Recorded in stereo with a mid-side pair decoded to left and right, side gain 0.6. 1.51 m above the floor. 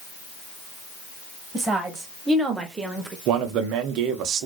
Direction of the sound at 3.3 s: 70° right.